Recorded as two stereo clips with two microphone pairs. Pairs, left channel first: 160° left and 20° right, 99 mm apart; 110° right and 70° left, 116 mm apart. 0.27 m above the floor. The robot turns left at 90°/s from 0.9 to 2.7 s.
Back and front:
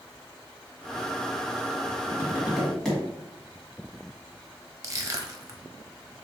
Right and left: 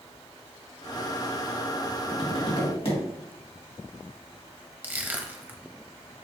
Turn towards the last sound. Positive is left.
turn(degrees=0)